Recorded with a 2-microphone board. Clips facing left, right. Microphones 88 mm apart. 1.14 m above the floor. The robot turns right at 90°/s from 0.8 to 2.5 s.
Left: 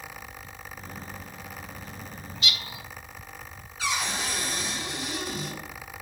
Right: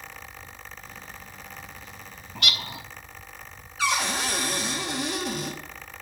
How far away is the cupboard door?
About 2 m.